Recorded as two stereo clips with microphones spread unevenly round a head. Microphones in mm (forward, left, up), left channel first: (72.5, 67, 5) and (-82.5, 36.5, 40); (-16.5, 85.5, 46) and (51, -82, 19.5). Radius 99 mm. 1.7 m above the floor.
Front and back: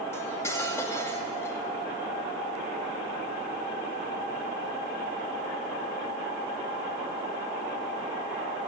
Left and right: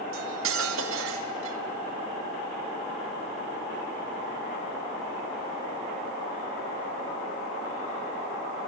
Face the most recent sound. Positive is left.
turn(degrees=-75)